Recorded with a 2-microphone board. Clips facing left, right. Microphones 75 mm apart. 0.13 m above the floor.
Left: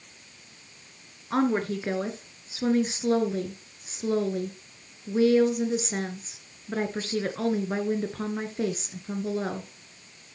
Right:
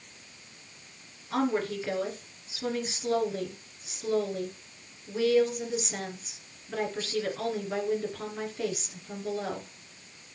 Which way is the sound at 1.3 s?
35° left (ahead or behind).